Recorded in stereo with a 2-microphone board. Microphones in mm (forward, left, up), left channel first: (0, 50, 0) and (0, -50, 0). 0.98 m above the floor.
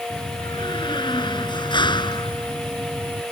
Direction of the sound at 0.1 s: 50° left (ahead or behind).